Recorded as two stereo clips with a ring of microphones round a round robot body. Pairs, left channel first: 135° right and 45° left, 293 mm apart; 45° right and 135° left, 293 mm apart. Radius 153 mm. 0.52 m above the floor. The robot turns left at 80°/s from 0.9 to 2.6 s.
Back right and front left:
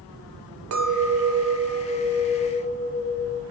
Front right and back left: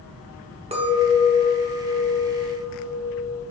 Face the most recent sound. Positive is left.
turn(degrees=-70)